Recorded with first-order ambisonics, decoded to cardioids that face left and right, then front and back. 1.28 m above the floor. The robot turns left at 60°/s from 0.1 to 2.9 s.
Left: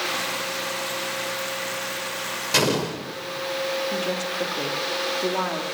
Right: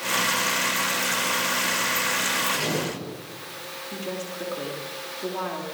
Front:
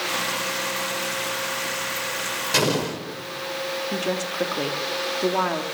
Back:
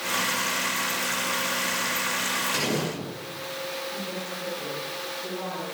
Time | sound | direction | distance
2.5 | an explosion | 55° left | 5.5 m
3.9 | a woman speaking | 20° left | 2.5 m